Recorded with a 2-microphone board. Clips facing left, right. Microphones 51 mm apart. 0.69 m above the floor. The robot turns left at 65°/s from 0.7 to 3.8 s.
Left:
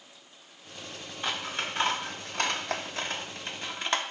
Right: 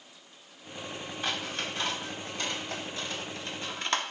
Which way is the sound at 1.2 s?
5° left (ahead or behind).